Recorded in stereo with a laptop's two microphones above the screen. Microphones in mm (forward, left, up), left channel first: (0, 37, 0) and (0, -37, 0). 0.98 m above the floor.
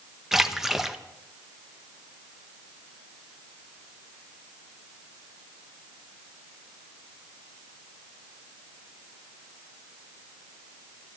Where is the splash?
5° right (ahead or behind), 0.6 m.